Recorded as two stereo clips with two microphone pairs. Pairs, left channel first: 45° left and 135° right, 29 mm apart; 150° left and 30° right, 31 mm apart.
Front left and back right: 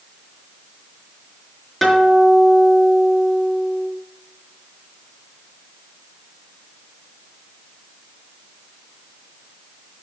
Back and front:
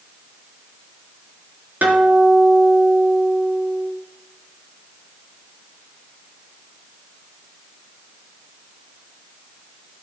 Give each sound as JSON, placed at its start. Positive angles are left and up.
{"t": 1.8, "sound": "a guitar", "azimuth_deg": -30, "distance_m": 4.0}